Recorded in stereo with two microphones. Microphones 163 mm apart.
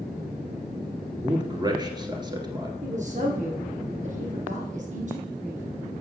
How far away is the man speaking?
About 1.7 m.